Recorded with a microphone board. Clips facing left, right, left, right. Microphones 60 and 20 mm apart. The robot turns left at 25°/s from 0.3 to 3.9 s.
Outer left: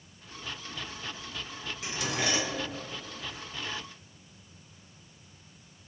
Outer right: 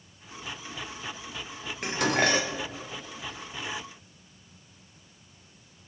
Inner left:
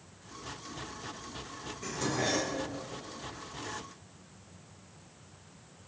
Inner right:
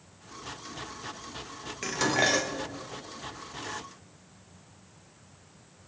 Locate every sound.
1.8 s dishes clattering: 65° right (ahead or behind), 0.9 m; by 2.6 s 50° right (ahead or behind), 0.9 m